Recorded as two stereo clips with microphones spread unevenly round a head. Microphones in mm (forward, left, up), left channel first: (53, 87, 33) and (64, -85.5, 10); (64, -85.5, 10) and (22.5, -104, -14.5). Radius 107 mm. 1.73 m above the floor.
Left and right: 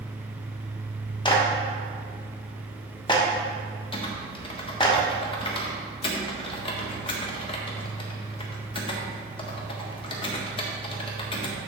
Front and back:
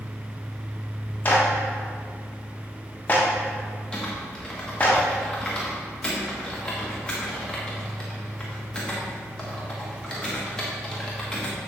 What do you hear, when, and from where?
1.2 s a clap: 40° left, 1.3 m
3.9 s typing on a keyboard: 55° left, 1.2 m